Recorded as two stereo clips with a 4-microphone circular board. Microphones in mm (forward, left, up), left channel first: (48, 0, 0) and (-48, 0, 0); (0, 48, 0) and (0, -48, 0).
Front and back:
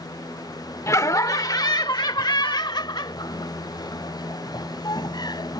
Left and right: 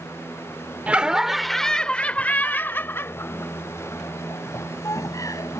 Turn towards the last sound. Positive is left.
turn(degrees=40)